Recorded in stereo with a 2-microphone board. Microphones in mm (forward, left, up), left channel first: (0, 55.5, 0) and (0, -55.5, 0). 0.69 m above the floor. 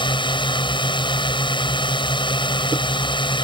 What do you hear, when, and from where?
0.0 s a drone: 45° left (ahead or behind)